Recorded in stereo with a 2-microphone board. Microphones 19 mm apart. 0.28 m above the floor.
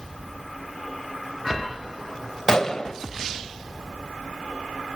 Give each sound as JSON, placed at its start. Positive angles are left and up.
{"t": 2.5, "sound": "a gunshot", "side_deg": 25, "distance_m": 0.8}